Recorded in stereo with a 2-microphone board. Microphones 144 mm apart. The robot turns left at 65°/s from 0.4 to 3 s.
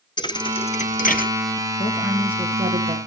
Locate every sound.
0.2 s a thud: 30° left (ahead or behind), 1.1 m; by 1.3 s 75° left (ahead or behind), 1.1 m
1.8 s a woman speaking: 25° left, 3 m; by 3.0 s 55° right, 3 m